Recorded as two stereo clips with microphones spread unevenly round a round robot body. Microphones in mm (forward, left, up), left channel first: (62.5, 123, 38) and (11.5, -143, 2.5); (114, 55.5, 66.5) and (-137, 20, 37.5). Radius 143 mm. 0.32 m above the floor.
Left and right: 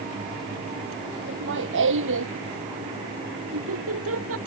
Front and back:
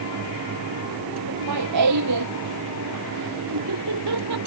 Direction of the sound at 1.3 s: 155° right.